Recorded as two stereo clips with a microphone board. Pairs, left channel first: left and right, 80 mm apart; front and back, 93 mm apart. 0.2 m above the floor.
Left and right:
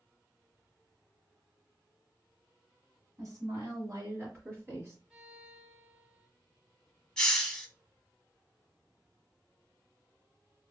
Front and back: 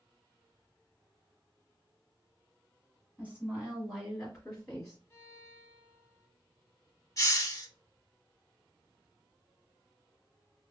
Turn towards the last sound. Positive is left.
turn(degrees=15)